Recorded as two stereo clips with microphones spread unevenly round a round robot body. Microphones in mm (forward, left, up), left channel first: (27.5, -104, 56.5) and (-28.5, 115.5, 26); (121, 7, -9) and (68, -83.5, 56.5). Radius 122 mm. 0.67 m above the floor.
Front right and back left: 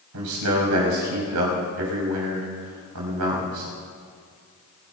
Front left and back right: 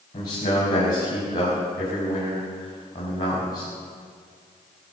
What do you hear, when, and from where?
0.1 s a man speaking: 110° left, 4.5 m